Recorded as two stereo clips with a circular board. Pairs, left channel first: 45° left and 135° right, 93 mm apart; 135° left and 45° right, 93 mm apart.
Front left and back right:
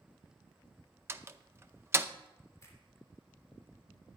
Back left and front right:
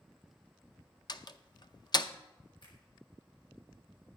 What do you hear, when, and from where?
1.1 s a door slam: 165° left, 0.5 m
2.6 s a finger snap: 105° left, 3.5 m